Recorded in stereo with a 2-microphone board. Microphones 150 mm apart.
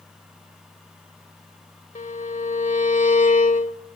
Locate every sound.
1.9 s a violin: 60° left (ahead or behind), 1.6 m